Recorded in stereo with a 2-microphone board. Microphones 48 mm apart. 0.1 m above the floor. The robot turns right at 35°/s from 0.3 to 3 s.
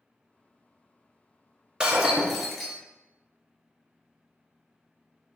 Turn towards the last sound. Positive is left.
turn(degrees=15)